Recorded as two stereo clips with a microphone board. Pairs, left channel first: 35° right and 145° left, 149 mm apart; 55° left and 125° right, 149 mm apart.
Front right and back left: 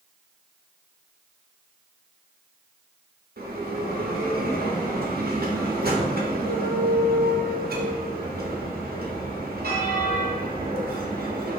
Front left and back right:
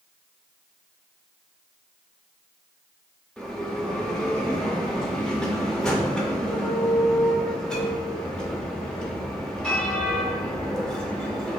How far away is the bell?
About 0.8 m.